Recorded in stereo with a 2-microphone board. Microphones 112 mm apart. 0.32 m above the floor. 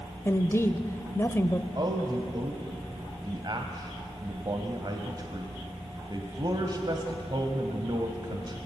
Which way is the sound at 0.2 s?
25° left (ahead or behind).